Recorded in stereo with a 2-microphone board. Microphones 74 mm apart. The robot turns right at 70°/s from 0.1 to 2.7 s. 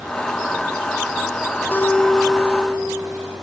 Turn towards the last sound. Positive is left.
turn(degrees=-140)